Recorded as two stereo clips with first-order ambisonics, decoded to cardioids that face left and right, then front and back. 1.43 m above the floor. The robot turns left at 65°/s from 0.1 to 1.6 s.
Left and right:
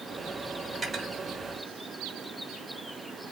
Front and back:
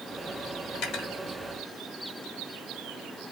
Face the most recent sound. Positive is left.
turn(degrees=-65)